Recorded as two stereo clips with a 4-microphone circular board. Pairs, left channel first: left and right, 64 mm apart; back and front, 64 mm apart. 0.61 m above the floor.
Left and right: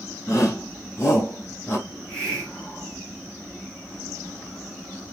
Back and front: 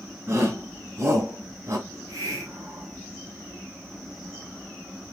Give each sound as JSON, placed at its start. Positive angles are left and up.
{"t": 0.3, "sound": "a shout", "azimuth_deg": 45, "distance_m": 5.5}
{"t": 1.9, "sound": "a hiss", "azimuth_deg": 15, "distance_m": 3.0}